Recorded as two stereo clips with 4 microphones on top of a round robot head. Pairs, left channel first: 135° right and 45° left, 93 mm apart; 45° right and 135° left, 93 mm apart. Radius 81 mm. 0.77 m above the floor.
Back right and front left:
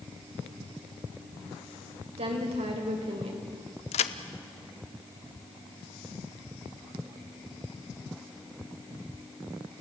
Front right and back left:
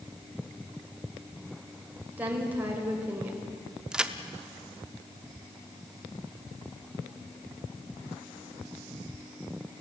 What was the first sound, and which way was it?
A woman speaking, 60° left.